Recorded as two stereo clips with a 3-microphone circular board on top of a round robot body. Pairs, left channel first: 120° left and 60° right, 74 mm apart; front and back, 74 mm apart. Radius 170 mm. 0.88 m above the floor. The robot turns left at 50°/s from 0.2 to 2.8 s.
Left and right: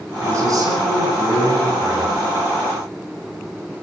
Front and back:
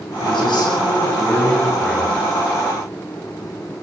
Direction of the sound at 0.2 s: 10° right.